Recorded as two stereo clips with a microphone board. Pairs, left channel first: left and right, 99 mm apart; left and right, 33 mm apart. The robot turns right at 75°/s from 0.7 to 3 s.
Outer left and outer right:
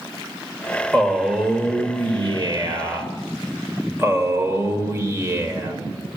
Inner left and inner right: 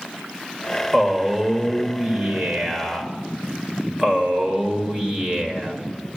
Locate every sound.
0.9 s a man speaking: 170° left, 1.3 m; by 5.8 s 35° right, 1.3 m